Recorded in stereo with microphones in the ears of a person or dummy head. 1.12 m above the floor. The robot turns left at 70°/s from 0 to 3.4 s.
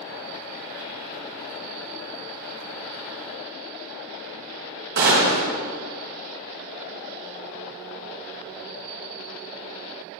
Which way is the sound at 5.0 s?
50° right (ahead or behind).